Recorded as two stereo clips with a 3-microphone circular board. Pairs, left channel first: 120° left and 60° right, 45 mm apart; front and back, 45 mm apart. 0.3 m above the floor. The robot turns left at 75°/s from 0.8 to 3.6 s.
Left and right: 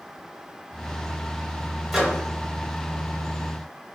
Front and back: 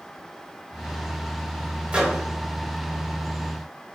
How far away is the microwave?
About 1.4 m.